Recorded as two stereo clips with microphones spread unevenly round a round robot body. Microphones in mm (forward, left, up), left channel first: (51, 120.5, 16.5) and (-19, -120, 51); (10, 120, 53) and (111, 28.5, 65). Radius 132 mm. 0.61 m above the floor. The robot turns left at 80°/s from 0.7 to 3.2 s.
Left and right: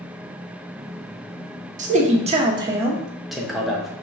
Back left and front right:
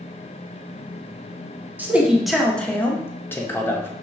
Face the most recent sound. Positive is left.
turn(degrees=140)